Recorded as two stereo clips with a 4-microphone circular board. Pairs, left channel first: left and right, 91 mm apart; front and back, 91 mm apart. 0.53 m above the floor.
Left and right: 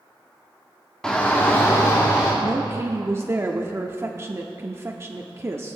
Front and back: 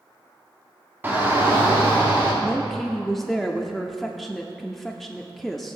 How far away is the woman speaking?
About 0.7 m.